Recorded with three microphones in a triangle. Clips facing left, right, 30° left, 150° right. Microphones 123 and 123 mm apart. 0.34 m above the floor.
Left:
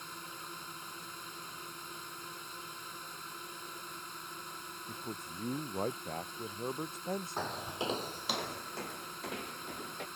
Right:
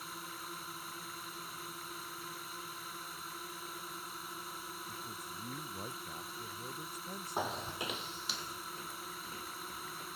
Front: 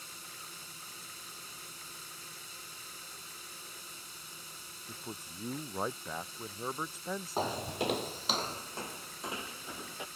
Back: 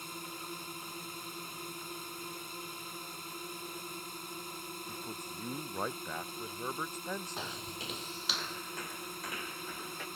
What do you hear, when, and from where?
0.0 s a drone: 175° right
4.9 s a man speaking: 110° left
7.4 s footsteps: 15° right; by 10.1 s 100° left